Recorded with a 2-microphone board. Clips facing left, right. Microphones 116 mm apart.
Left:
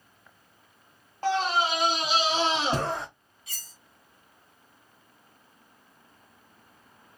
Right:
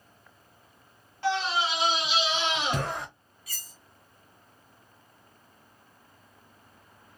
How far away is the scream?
About 0.9 m.